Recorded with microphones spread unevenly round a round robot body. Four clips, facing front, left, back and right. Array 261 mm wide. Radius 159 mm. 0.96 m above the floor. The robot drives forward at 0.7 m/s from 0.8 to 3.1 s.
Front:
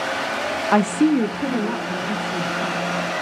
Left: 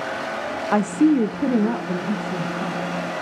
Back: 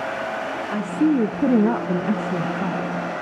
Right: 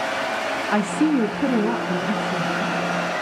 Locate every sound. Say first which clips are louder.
0.7 s a woman speaking: left 3 dB, front 3 dB; 50° left, 0.5 m; by 3.0 s 170° left, 1.4 m